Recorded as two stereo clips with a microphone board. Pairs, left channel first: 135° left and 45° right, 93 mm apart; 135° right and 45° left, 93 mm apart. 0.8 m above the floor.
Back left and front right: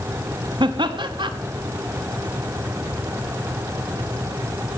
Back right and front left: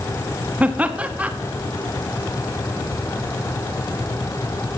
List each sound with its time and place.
0.6 s laughter: 25° right, 1.1 m